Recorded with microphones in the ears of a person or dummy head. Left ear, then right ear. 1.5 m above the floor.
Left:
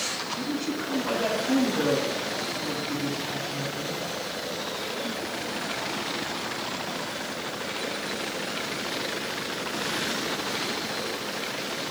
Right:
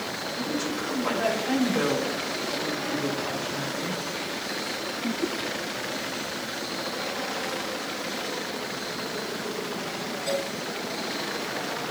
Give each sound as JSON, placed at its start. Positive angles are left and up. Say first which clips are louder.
{"t": 0.3, "sound": "a woman speaking", "louder": "right 1 dB", "side_deg": -80, "distance_m": 3.5}